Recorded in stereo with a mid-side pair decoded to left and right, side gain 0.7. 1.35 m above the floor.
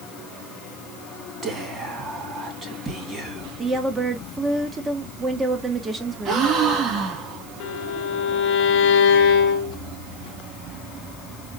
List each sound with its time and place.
1.4 s whispering: 30° right, 2.5 m
3.6 s a woman speaking: 25° right, 1.5 m
6.2 s a gasp: 45° right, 1.8 m
7.6 s a violin: 60° left, 0.9 m